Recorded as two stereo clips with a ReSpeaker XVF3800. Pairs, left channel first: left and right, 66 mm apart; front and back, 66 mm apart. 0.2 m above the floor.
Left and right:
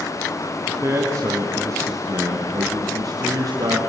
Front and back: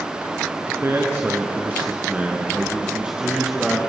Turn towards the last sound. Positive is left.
turn(degrees=-95)